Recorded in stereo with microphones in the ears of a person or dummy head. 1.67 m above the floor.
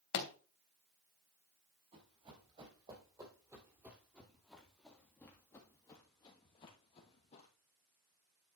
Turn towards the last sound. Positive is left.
turn(degrees=40)  # may be behind; listen again after turning